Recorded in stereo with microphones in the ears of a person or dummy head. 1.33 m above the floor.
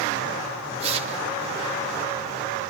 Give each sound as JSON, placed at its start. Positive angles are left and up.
{"t": 0.8, "sound": "tearing paper", "side_deg": -40, "distance_m": 2.0}